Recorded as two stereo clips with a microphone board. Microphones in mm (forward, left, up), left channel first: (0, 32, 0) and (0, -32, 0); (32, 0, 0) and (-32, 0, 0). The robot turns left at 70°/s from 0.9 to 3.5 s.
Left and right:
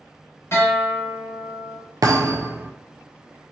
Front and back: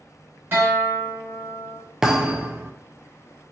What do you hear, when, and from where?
0.5 s a guitar: 130° left, 1.5 m; by 1.8 s 70° left, 1.5 m
2.0 s a thud: 95° right, 0.6 m; by 2.7 s 145° right, 0.6 m